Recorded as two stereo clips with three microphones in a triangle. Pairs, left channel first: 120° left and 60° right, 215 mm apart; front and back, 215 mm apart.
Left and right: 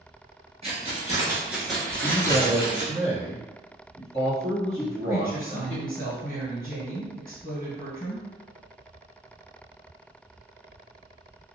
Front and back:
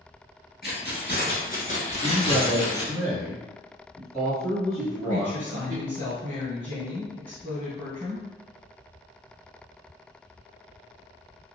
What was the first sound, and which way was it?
Keys jangling, 10° right.